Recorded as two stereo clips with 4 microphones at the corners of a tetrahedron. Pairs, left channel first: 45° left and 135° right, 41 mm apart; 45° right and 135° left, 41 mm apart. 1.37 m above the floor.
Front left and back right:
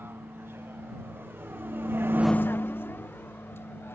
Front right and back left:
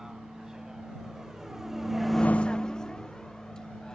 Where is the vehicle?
145° right; by 4.0 s 30° left.